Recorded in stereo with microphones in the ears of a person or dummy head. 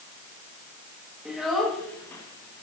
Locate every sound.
1.2 s a child speaking: 5° right (ahead or behind), 1.3 m; by 2.6 s 25° left (ahead or behind), 1.0 m